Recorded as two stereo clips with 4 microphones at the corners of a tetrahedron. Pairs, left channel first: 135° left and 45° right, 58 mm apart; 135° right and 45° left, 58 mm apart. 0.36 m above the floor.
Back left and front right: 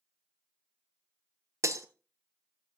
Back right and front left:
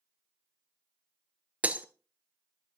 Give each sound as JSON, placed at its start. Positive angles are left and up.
{"t": 1.6, "sound": "breaking glass", "azimuth_deg": -20, "distance_m": 0.8}